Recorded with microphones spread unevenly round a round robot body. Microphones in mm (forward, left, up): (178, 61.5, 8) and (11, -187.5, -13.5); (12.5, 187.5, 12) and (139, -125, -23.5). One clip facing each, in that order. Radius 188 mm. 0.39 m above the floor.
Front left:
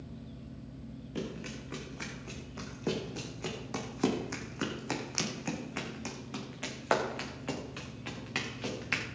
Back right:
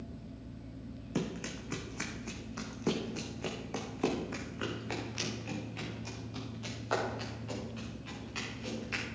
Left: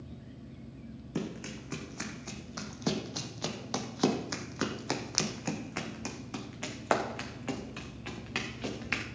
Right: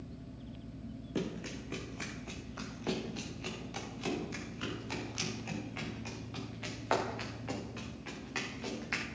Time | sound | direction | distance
1.1 | running footsteps | 175° right | 1.6 m